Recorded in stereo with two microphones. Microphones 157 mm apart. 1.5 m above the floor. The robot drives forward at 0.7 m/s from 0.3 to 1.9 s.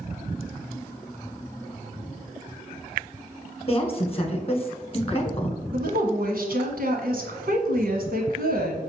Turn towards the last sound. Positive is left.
turn(degrees=-70)  # may be behind; listen again after turning